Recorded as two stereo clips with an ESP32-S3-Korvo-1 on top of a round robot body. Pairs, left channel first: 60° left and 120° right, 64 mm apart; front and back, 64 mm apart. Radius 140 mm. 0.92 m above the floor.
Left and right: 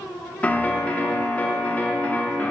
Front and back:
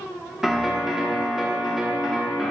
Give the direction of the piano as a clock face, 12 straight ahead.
9 o'clock.